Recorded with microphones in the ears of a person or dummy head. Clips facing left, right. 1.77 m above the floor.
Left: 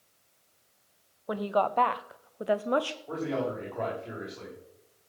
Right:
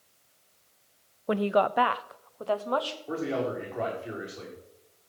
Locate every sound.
1.3 s a woman speaking: 35° right (ahead or behind), 0.5 m; by 3.0 s 35° left (ahead or behind), 0.8 m
3.1 s a man speaking: 10° right (ahead or behind), 6 m